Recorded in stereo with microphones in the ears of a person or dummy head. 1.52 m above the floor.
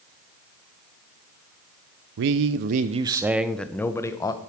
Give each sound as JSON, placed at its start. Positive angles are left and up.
{"t": 2.2, "sound": "a man speaking", "side_deg": -55, "distance_m": 0.6}